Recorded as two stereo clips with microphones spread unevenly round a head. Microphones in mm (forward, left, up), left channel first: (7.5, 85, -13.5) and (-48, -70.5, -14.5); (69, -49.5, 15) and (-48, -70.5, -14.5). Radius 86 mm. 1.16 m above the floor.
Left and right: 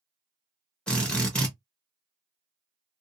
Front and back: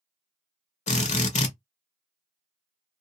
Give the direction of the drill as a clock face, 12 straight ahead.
12 o'clock.